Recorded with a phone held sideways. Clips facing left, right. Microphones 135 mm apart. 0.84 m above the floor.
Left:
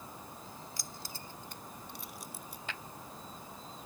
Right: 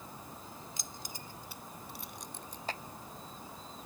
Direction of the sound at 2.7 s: 35° right (ahead or behind).